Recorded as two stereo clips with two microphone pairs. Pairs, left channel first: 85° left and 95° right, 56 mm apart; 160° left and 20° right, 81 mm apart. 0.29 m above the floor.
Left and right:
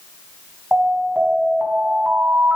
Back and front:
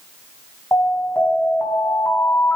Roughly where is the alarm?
Behind right.